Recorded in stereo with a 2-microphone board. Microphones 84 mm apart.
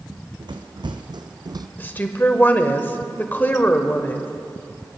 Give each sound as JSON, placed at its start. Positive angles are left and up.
{"t": 0.1, "sound": "running footsteps", "side_deg": -65, "distance_m": 1.6}
{"t": 1.8, "sound": "a woman speaking", "side_deg": 25, "distance_m": 1.2}